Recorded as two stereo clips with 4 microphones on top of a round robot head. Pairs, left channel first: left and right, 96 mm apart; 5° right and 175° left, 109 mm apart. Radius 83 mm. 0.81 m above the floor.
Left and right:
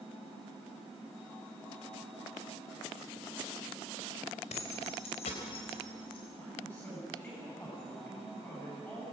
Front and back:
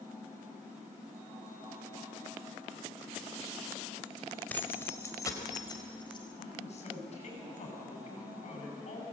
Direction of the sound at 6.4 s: 15° left.